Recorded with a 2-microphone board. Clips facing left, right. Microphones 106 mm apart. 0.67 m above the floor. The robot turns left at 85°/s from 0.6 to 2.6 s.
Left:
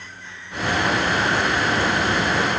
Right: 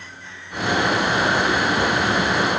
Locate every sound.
Only background noise.